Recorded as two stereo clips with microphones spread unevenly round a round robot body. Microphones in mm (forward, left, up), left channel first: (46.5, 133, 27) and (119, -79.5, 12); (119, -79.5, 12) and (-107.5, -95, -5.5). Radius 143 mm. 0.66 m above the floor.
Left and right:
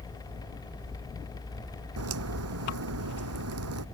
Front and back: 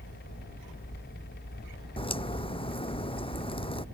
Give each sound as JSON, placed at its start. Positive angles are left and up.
{"t": 2.0, "sound": "a crack", "azimuth_deg": -60}